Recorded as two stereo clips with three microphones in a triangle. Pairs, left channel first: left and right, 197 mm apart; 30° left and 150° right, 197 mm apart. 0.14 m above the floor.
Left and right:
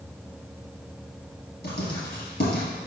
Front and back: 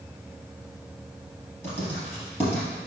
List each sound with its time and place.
1.6 s writing: 110° left, 2.5 m